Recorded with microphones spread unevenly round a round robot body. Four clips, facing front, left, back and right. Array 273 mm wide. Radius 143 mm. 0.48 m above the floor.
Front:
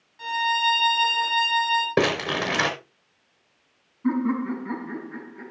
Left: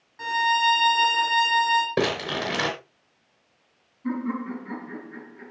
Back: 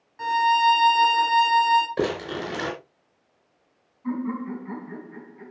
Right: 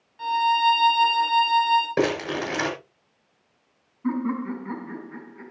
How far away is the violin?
About 2 m.